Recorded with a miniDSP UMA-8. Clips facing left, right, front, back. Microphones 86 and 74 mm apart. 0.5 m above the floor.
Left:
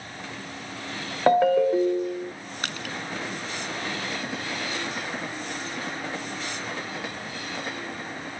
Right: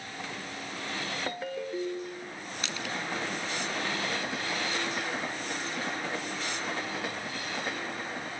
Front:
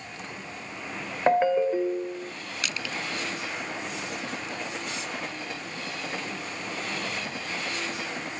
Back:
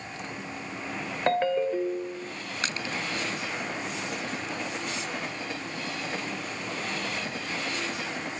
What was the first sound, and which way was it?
A ringtone, 75° left.